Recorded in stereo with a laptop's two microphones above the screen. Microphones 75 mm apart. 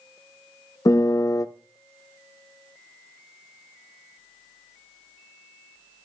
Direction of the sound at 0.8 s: 50° left (ahead or behind).